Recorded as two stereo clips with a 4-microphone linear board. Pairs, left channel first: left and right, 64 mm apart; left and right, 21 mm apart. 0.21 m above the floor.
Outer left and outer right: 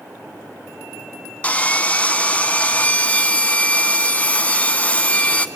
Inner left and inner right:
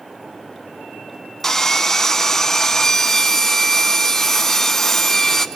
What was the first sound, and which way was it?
Sawing, 25° left (ahead or behind).